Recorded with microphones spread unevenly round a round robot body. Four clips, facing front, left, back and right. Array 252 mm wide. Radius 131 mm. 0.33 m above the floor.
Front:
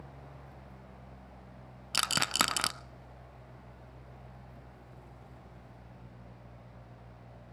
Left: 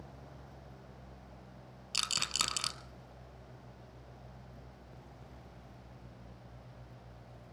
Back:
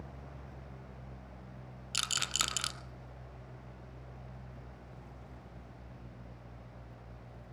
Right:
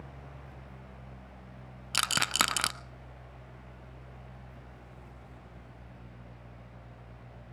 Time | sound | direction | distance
1.9 | a rattle | 35° right | 0.5 m